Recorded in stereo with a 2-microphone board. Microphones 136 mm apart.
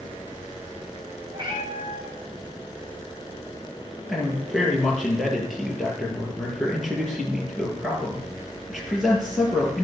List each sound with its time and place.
1.3 s a cat meowing: 35° right (ahead or behind), 5 m
4.1 s a man speaking: centre (ahead or behind), 5.5 m